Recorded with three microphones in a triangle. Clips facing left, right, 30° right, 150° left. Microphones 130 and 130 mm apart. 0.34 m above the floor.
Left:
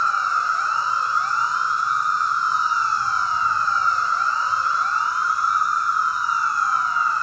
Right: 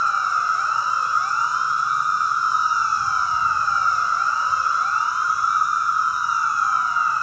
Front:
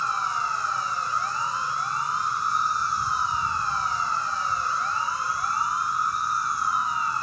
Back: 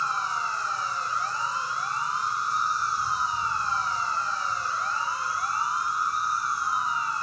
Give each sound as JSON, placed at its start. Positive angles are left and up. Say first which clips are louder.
{"t": 0.0, "sound": "an insect", "louder": "even, front 2 dB", "azimuth_deg": -10, "distance_m": 0.9}